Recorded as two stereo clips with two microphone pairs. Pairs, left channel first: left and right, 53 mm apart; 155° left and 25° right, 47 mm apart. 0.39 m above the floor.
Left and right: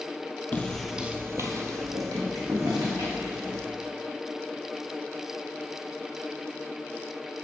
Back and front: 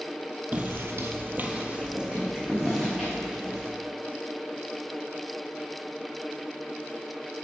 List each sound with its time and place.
0.5 s footsteps: 25° left, 0.8 m; by 3.6 s 105° right, 3.5 m